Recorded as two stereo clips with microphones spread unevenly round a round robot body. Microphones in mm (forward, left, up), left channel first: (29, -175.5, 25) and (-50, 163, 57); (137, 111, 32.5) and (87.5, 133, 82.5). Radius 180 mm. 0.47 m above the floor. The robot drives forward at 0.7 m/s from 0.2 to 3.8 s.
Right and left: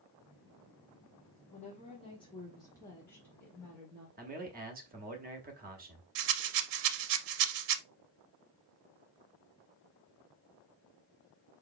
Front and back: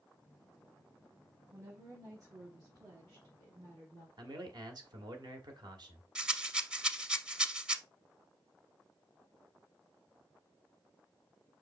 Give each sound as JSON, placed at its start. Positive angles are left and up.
{"t": 1.5, "sound": "a woman speaking", "azimuth_deg": -90, "distance_m": 1.3}
{"t": 4.2, "sound": "a man speaking", "azimuth_deg": 140, "distance_m": 1.1}
{"t": 6.2, "sound": "a rattle", "azimuth_deg": 105, "distance_m": 0.7}